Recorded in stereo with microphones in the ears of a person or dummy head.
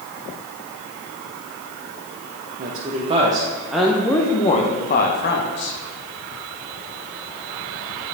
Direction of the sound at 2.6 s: 45° right (ahead or behind).